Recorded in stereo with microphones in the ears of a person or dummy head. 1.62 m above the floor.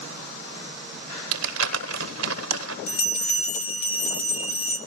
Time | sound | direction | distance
1.3 | crumpling | 85° right | 1.2 m
2.9 | a bell | 35° left (ahead or behind) | 1.6 m